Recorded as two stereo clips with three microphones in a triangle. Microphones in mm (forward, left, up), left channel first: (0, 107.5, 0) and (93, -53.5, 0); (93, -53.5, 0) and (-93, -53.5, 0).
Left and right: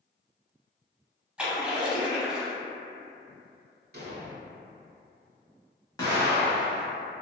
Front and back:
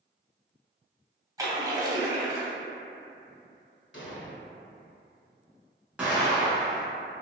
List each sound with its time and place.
1.4 s a splash: 135° right, 0.6 m
3.9 s an explosion: 20° right, 0.6 m
6.0 s an explosion: 115° left, 1.0 m